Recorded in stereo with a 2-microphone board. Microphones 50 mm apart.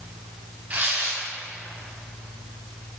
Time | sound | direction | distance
0.7 | tearing paper | 30° right (ahead or behind) | 2.5 m